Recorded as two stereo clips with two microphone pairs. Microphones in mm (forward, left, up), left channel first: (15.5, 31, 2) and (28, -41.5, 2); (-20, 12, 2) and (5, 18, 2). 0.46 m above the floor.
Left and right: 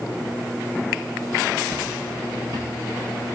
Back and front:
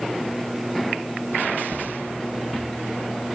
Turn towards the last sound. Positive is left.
turn(degrees=-60)